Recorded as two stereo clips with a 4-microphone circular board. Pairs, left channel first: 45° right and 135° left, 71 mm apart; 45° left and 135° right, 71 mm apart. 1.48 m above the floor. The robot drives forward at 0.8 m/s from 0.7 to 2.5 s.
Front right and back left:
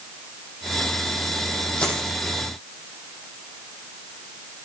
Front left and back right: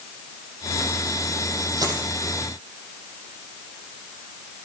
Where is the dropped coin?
120° right, 7.5 m.